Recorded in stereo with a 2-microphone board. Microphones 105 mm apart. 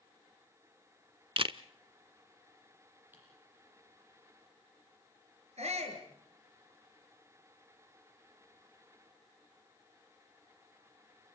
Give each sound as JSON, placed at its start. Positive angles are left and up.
{"t": 1.4, "sound": "a camera shutter", "side_deg": -55, "distance_m": 0.7}
{"t": 3.1, "sound": "typing on a keyboard", "side_deg": -15, "distance_m": 9.5}
{"t": 5.6, "sound": "a shout", "side_deg": -75, "distance_m": 6.0}